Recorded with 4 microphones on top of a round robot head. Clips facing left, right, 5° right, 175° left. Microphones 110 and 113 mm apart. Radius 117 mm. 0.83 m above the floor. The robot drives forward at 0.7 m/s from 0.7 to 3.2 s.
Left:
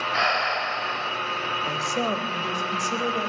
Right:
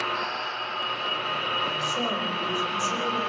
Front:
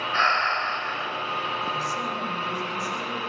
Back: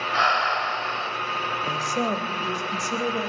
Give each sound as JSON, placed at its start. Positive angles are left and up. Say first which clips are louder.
{"t": 0.1, "sound": "breathing", "louder": "left 6 dB, back 2 dB", "azimuth_deg": 95, "distance_m": 1.2}
{"t": 1.6, "sound": "a woman speaking", "louder": "left 2 dB, back 3 dB", "azimuth_deg": 145, "distance_m": 4.0}